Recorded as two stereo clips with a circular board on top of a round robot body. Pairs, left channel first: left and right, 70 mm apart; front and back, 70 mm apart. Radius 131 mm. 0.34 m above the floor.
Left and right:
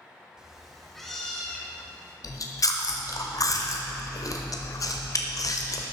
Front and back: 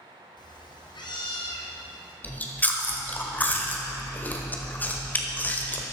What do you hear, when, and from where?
0.4 s a cat meowing: 10° right, 1.4 m; by 2.1 s 10° left, 3.5 m
2.2 s chewing: 60° left, 1.4 m